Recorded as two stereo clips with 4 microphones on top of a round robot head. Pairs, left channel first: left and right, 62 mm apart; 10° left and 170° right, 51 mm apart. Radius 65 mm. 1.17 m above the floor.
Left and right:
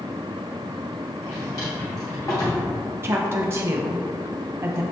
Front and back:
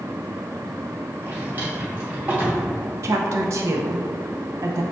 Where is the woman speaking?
140° right, 0.6 m.